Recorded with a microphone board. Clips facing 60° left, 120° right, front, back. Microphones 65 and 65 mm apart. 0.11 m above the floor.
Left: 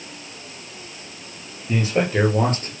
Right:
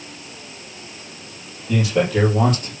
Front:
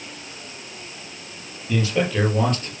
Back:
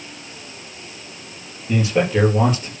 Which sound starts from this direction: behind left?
A man speaking, at 1.7 s.